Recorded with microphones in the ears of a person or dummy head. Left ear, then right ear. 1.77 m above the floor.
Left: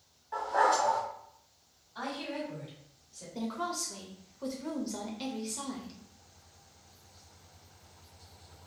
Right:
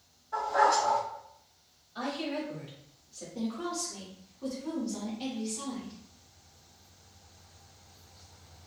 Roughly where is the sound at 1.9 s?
Centre.